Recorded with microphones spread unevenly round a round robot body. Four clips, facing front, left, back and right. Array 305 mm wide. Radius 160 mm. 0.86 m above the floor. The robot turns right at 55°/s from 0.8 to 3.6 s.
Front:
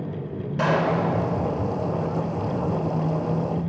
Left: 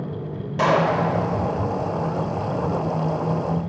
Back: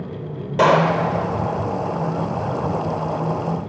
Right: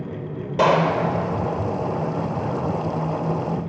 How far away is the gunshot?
About 3 m.